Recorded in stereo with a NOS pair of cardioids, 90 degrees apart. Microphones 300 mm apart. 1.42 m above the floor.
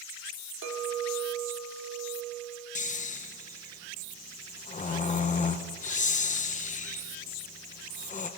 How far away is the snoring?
About 1.5 m.